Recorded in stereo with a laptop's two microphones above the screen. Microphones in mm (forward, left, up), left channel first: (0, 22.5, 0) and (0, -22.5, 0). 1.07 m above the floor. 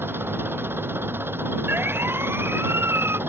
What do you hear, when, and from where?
0.0 s an engine running: 60° right (ahead or behind)
1.7 s a siren: 55° right (ahead or behind); by 3.2 s 75° right (ahead or behind)